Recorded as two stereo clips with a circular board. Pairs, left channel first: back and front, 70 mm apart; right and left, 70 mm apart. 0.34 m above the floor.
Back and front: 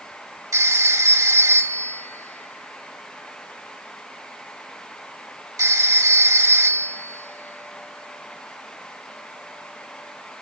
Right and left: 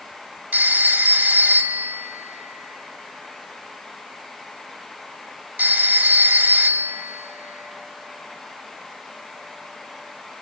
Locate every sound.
0.5 s a phone ringing: 30° left, 1.2 m